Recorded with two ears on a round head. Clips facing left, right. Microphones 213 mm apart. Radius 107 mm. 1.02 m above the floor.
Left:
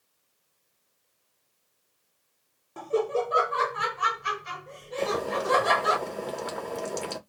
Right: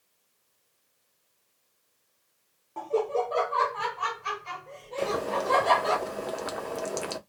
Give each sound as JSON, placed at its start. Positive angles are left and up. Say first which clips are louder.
{"t": 2.8, "sound": "laughter", "louder": "left 1 dB", "side_deg": 20, "distance_m": 0.6}
{"t": 5.0, "sound": "boiling", "louder": "left 1 dB", "side_deg": -5, "distance_m": 0.6}